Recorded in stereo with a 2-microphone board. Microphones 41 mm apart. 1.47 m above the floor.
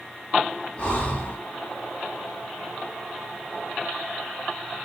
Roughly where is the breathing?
Left.